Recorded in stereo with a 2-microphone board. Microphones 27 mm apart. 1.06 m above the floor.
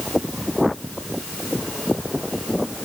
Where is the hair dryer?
No hair dryer in this recording.